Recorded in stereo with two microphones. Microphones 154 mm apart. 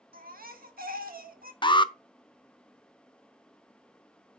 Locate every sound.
0.1 s a baby crying: 70° right (ahead or behind), 1.1 m
1.6 s an alarm: 30° left (ahead or behind), 0.5 m